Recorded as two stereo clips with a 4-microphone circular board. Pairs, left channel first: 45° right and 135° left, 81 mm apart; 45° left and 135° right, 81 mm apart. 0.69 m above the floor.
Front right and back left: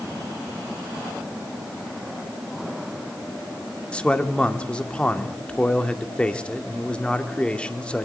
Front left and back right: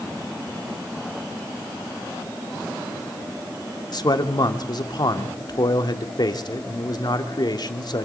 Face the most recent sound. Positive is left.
turn(degrees=30)